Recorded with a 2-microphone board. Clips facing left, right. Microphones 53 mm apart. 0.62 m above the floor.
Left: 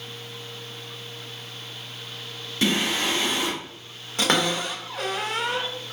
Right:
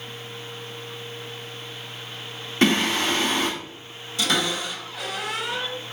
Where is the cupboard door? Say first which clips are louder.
Left 2 dB; 45° left (ahead or behind), 2.0 m.